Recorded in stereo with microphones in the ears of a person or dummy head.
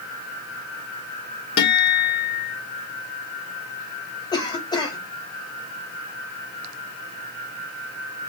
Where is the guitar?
70° left (ahead or behind), 1.3 m.